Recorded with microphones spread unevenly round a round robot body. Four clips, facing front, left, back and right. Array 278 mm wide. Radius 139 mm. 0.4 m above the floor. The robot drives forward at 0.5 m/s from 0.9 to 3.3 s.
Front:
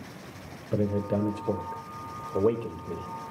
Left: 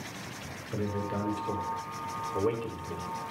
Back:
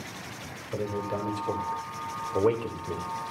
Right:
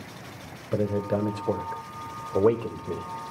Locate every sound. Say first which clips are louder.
0.7 s a man speaking: right 7 dB, front 4 dB; 55° right, 1.5 m; by 3.1 s 115° right, 1.4 m